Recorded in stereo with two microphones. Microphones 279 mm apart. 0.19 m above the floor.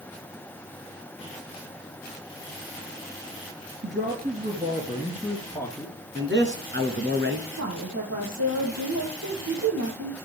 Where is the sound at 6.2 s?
40° right (ahead or behind), 1.9 m.